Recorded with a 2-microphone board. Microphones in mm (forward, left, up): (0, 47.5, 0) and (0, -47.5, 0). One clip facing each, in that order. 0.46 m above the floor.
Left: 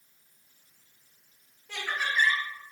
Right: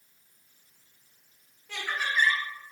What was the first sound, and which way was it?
Laughter, 10° left (ahead or behind).